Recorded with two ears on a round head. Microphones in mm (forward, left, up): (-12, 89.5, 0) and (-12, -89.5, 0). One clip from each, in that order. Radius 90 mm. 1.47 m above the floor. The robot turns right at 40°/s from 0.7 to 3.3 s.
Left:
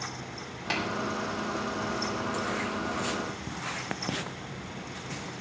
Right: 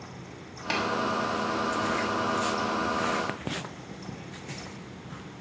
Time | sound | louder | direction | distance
0.7 | tapping | right 2 dB | 10° right (ahead or behind) | 5.5 m